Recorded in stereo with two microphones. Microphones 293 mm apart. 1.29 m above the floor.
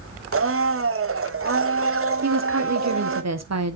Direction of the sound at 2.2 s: 60° right (ahead or behind).